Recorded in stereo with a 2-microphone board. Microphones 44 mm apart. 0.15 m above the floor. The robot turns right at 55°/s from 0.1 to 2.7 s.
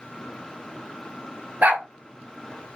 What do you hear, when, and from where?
1.6 s a dog barking: 40° right (ahead or behind), 0.8 m; by 1.9 s 30° right (ahead or behind), 0.8 m